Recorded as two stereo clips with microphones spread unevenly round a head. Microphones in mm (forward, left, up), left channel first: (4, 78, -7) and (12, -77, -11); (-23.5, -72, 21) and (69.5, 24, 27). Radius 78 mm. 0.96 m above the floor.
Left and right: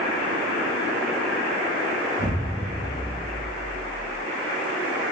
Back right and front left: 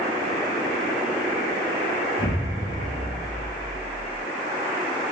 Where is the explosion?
155° right, 1.1 m.